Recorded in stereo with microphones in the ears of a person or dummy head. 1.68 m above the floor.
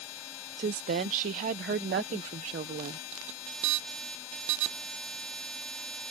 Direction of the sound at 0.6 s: 45° right (ahead or behind).